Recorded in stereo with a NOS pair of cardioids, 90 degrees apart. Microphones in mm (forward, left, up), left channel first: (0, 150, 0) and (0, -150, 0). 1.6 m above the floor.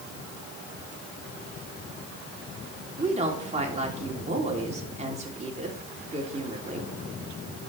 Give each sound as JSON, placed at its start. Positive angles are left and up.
{"t": 3.0, "sound": "a woman speaking", "azimuth_deg": -25, "distance_m": 3.5}